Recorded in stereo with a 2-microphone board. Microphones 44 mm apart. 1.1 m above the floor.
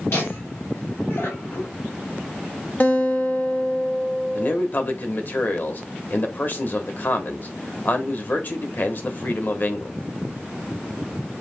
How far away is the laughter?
About 2.5 m.